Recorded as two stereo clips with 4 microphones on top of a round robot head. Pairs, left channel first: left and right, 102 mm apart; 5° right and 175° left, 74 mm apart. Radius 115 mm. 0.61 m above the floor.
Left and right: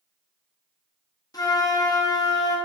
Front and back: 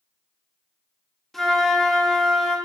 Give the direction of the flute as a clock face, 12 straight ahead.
9 o'clock.